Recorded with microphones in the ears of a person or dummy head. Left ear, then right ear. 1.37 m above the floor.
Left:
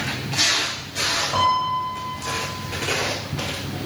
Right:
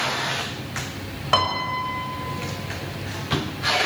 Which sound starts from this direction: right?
A piano, at 1.3 s.